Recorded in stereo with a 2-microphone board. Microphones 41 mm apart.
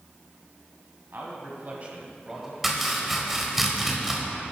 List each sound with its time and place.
1.1 s a man speaking: 60° right (ahead or behind), 2 m; by 2.5 s centre (ahead or behind), 1.6 m
2.6 s chopping: 5° right (ahead or behind), 1.5 m